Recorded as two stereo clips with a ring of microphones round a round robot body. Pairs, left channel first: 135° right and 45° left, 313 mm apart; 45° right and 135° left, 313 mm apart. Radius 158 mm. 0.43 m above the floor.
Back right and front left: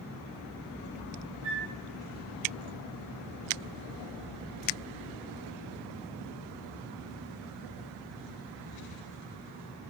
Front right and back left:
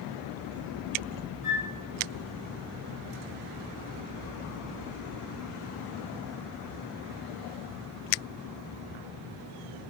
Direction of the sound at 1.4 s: 20° right.